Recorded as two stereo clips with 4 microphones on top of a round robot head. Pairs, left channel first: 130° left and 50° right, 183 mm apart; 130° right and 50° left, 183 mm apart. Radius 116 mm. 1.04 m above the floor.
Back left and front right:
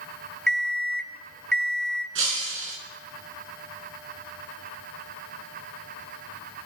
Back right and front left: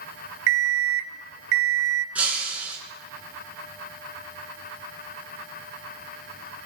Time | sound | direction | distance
0.5 | an alarm clock | 45° left | 0.9 m
2.1 | breaking glass | 30° right | 4.5 m